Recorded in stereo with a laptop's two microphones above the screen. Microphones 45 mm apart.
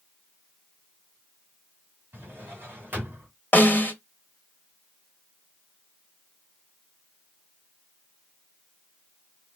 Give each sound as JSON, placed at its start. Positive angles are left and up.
{"t": 2.1, "sound": "a drawer", "side_deg": -50, "distance_m": 1.8}
{"t": 3.5, "sound": "a snare drum", "side_deg": 45, "distance_m": 1.2}